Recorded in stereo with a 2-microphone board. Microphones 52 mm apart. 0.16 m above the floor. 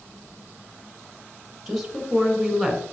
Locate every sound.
1.7 s a woman speaking: 5° right (ahead or behind), 2.0 m